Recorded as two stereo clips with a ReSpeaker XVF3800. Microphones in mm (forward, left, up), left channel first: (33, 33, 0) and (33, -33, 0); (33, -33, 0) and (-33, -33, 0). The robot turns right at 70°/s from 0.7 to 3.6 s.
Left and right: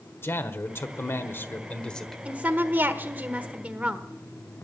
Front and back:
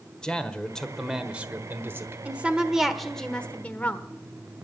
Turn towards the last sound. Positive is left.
turn(degrees=-45)